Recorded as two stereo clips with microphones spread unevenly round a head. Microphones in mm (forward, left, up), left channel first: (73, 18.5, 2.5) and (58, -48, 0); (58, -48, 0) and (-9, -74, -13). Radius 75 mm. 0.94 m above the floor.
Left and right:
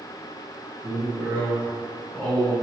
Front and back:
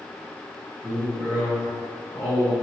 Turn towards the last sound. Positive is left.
turn(degrees=-5)